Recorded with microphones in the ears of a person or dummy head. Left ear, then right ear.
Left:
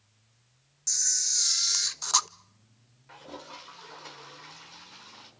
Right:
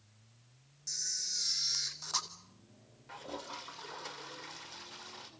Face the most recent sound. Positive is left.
turn(degrees=-5)  # may be behind; listen again after turning